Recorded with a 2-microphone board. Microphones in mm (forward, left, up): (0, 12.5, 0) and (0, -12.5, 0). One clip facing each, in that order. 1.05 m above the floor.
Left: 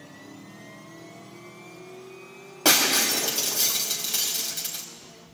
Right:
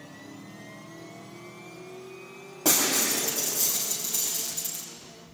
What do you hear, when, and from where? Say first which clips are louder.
2.6 s breaking glass: left 4 dB; 75° left (ahead or behind), 3.5 m